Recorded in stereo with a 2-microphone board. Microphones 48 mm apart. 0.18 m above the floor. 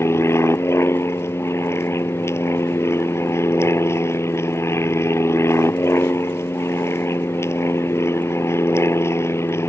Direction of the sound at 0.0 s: 65° left (ahead or behind).